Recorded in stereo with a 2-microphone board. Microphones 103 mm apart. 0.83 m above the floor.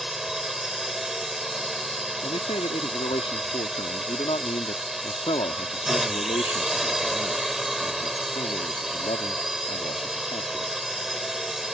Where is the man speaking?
70° left (ahead or behind).